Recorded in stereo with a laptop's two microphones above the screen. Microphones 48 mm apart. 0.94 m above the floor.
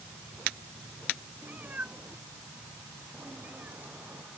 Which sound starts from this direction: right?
A cat meowing, at 1.4 s.